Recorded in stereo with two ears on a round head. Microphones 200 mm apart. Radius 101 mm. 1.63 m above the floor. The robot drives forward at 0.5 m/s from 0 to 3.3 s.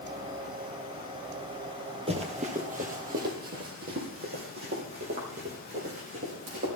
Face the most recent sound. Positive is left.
turn(degrees=-45)  # may be behind; listen again after turning